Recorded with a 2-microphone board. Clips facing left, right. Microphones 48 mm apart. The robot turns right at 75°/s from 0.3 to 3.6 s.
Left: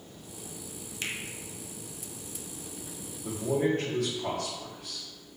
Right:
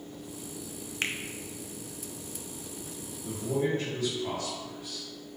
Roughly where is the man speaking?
Left.